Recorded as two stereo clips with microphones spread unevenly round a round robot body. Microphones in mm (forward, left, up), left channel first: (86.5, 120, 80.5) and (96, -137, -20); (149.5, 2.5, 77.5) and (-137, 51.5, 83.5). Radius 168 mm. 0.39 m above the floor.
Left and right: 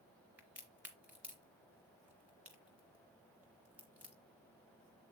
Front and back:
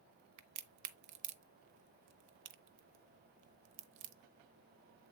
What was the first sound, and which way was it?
A crack, 165° right.